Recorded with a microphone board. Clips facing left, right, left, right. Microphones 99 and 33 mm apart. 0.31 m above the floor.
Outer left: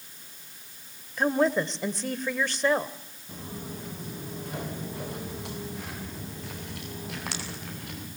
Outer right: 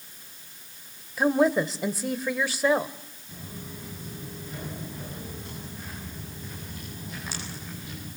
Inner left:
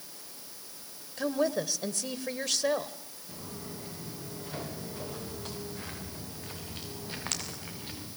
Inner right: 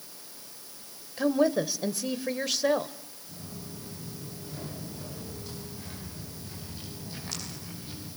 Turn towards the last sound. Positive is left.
turn(degrees=65)  # may be behind; listen again after turning